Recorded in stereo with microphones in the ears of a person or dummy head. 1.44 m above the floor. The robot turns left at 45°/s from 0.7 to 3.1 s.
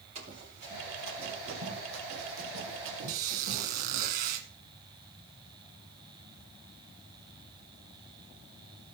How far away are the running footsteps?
About 5.5 m.